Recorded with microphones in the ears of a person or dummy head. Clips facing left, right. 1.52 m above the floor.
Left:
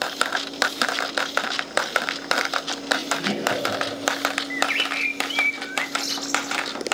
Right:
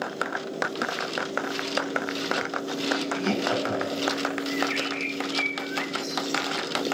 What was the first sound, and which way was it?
Laughter, 30° left (ahead or behind).